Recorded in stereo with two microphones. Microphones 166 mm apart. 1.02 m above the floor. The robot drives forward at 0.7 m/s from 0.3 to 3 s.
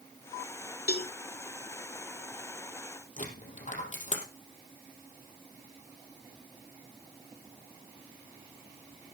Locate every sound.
0.9 s a cowbell: 70° left (ahead or behind), 1.2 m
3.2 s a dropped coin: 50° left (ahead or behind), 3.5 m